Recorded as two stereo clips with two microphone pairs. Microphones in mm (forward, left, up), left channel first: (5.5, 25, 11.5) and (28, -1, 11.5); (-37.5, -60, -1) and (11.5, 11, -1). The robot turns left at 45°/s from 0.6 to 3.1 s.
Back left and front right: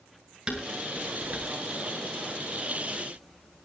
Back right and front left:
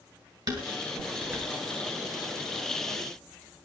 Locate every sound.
0.5 s dishes clattering: 20° left, 8 m; by 1.5 s 20° right, 8 m